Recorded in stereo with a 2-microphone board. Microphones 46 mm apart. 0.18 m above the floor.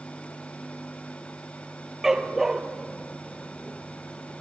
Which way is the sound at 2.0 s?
10° right (ahead or behind).